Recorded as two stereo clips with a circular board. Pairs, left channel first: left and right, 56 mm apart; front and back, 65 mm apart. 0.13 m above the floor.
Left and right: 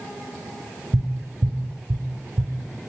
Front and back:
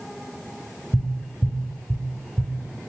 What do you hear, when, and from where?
0.9 s tapping: 80° right, 0.7 m